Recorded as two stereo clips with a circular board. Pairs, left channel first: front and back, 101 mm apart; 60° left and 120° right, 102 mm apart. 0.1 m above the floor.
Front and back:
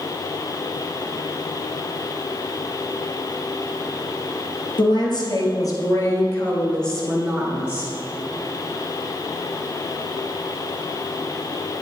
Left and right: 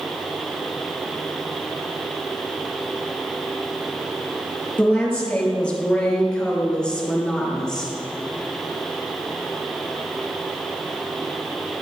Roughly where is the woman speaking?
Ahead.